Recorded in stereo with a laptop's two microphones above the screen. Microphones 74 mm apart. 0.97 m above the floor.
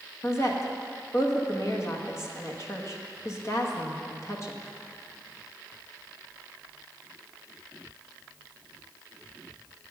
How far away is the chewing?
I don't hear chewing.